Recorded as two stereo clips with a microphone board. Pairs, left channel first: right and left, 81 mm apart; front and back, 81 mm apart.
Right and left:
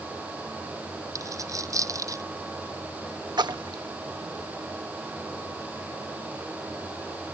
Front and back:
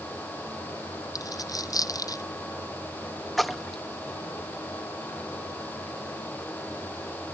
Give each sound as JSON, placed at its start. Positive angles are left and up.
{"t": 1.1, "sound": "a dropped coin", "azimuth_deg": 45}
{"t": 3.4, "sound": "a splash", "azimuth_deg": 90}